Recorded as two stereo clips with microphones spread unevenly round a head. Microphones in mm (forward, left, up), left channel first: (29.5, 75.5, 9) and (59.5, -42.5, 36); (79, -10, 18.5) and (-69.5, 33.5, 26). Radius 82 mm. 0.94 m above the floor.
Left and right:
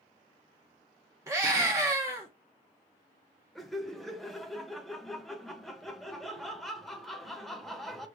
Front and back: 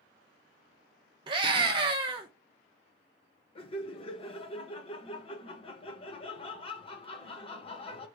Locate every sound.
1.3 s a scream: 150° right, 0.7 m
3.5 s laughter: 25° left, 1.1 m